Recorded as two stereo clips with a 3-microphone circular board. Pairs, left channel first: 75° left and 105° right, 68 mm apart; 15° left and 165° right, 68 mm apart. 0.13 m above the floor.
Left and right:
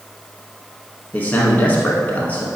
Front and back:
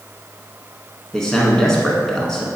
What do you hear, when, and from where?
1.1 s a man speaking: 90° left, 1.1 m